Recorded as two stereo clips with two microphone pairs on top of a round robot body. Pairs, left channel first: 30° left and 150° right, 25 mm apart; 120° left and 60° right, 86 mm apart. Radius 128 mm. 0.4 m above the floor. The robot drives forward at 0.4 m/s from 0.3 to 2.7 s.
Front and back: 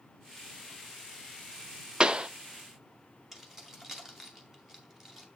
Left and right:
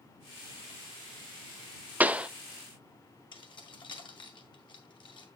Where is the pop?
130° right, 0.7 m; by 2.3 s 145° right, 0.7 m.